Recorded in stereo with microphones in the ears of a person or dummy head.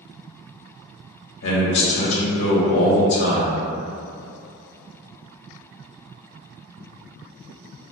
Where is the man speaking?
65° left (ahead or behind), 1.2 m.